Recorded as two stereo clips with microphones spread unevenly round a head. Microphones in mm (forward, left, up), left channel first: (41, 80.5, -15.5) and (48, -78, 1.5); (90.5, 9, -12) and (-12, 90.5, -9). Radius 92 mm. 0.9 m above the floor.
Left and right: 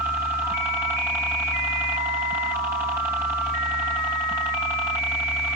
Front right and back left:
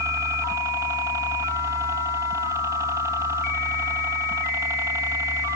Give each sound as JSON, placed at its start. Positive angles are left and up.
{"t": 0.0, "sound": "a helicopter", "azimuth_deg": -165}